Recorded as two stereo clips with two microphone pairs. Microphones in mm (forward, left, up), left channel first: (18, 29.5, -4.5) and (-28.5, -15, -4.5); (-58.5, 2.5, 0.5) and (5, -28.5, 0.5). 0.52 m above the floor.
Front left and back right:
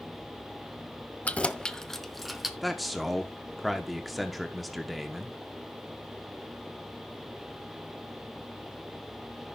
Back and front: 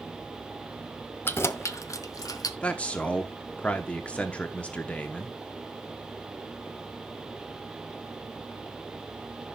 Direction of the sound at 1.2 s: 105° left.